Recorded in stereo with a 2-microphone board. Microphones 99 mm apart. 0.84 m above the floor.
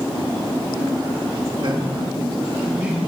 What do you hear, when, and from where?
1.6 s a man speaking: 55° right (ahead or behind), 1.4 m; by 3.0 s 15° right (ahead or behind), 2 m